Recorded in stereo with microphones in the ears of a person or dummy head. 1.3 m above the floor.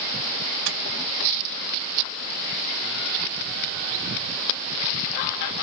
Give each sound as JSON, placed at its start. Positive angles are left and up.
{"t": 0.7, "sound": "a microwave", "side_deg": -65, "distance_m": 2.0}